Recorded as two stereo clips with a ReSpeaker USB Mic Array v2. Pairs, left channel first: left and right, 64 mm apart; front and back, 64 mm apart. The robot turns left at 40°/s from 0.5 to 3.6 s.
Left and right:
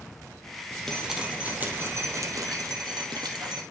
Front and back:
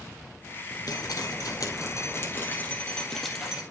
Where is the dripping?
5° left, 1.8 m; by 3.6 s 105° right, 1.8 m.